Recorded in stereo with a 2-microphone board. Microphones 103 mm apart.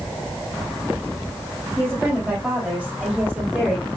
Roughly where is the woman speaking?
Centre.